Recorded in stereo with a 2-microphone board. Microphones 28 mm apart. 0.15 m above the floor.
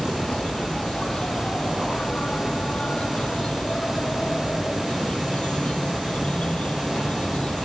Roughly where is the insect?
Left.